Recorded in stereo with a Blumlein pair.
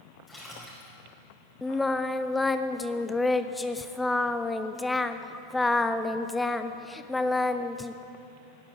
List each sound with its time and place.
0.3 s a splash: 10° left, 5.5 m
1.6 s singing: 5° left, 0.5 m